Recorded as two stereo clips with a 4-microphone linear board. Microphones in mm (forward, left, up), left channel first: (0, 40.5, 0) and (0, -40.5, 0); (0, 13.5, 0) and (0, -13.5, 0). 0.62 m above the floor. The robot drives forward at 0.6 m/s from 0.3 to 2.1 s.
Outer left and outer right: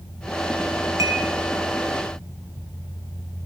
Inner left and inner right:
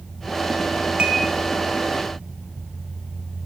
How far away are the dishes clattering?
About 4 m.